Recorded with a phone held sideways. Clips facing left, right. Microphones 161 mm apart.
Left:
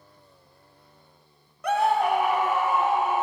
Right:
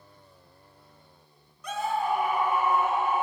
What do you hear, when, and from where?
1.6 s a scream: 65° left (ahead or behind), 0.5 m; by 3.2 s 85° left, 1.6 m